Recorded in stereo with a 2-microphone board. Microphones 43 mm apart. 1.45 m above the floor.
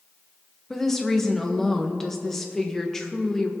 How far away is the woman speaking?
About 1.2 m.